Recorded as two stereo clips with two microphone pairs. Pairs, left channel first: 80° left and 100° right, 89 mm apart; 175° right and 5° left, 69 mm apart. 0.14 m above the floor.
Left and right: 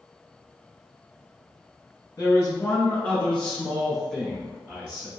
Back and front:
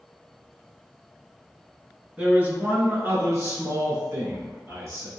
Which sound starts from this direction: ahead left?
A man speaking, at 2.2 s.